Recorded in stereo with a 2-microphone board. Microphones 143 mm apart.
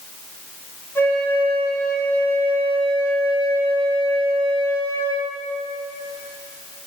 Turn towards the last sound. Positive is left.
turn(degrees=15)  # may be behind; listen again after turning